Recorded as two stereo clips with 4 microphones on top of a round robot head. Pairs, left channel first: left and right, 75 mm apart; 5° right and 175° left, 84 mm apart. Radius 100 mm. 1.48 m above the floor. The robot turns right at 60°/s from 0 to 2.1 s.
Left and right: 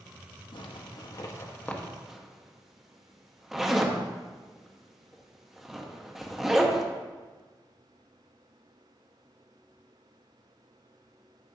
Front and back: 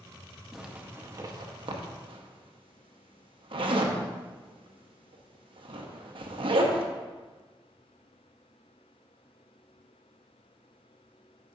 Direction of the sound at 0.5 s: 90° left.